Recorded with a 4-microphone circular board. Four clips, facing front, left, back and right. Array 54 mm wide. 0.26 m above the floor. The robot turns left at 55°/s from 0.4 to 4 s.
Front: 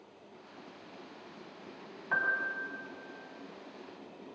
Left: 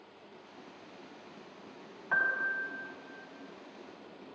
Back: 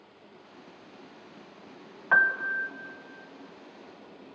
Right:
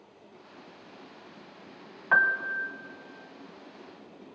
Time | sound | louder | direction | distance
2.1 | a piano | right 6 dB, back 8 dB | 135° right | 1.6 m